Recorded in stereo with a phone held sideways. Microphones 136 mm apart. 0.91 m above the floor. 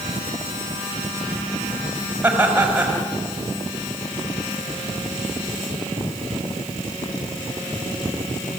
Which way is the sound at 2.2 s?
10° right (ahead or behind).